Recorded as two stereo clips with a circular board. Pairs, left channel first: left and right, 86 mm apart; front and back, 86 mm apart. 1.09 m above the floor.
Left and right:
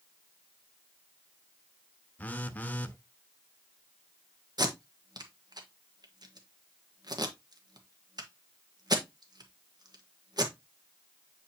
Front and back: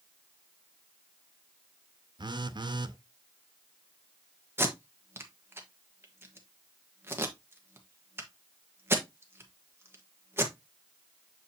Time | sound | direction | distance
2.2 | a phone buzzing | 160° left | 0.6 m
4.6 | tape being pulled | 120° right | 1.3 m